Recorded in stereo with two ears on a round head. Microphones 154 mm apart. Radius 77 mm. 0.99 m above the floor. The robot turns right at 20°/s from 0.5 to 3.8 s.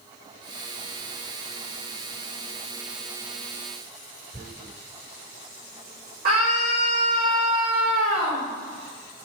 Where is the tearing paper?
60° right (ahead or behind), 1.6 m.